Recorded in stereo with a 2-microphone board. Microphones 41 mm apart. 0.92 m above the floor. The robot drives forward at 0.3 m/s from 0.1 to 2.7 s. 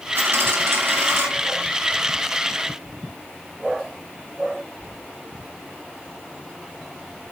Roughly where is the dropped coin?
Right.